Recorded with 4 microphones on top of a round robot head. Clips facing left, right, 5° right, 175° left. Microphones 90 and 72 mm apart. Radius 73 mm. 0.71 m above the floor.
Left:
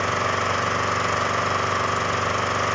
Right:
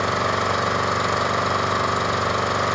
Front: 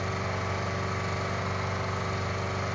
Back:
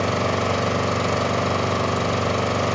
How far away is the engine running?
About 0.9 m.